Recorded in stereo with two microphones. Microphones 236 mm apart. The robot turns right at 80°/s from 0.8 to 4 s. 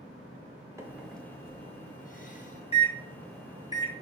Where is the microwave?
15° right (ahead or behind), 0.8 m; by 4.0 s 25° right (ahead or behind), 0.8 m.